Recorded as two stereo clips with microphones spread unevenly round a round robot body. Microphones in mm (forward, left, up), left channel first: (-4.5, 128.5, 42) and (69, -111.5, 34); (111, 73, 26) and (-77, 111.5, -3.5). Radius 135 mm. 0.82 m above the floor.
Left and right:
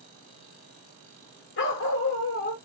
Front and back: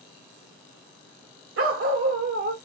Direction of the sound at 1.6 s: 160° left.